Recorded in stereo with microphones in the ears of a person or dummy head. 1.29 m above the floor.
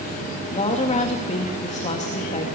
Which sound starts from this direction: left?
A woman speaking, at 0.5 s.